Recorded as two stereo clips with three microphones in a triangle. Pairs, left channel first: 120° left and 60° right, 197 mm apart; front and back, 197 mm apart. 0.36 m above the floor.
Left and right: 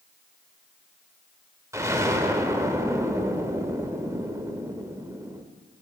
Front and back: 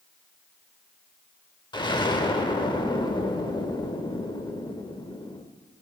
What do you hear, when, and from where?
1.7 s an explosion: 10° right, 0.7 m